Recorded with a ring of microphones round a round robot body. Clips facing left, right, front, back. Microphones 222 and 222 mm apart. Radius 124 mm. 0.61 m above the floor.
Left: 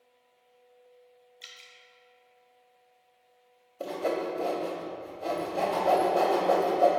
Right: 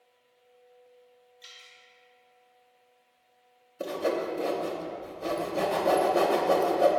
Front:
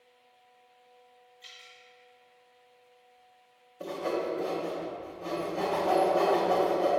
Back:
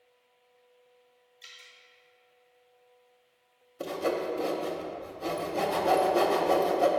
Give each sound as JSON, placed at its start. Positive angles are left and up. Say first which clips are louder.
{"t": 1.4, "sound": "dripping", "louder": "even, front 3 dB", "azimuth_deg": 110, "distance_m": 0.7}
{"t": 3.8, "sound": "sawing", "louder": "right 1 dB, back 1 dB", "azimuth_deg": -155, "distance_m": 0.6}